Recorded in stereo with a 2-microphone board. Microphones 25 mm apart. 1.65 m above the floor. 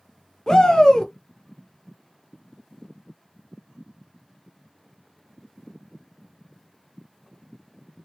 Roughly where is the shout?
Left.